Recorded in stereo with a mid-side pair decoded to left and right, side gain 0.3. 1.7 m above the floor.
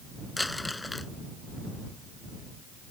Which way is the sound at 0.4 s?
20° left.